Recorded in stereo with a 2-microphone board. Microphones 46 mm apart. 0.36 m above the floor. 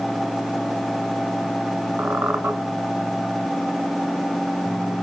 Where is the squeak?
65° right (ahead or behind), 0.6 m.